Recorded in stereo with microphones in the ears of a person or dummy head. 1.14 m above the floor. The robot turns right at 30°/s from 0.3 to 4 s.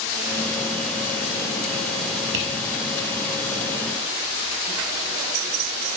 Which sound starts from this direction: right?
Tapping, at 2.3 s.